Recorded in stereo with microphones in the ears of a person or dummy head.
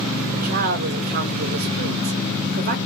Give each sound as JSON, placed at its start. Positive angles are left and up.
{"t": 0.3, "sound": "a woman speaking", "side_deg": -45, "distance_m": 0.8}